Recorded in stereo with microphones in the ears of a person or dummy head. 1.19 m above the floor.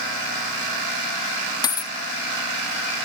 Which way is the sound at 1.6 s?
30° left (ahead or behind).